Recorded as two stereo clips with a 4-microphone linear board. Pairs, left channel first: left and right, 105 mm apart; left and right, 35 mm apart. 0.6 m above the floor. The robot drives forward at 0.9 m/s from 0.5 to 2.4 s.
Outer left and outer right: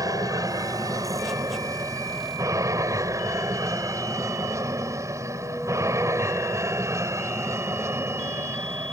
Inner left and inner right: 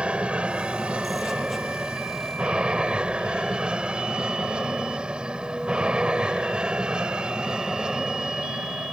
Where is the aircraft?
35° right (ahead or behind); by 8.9 s 25° right (ahead or behind).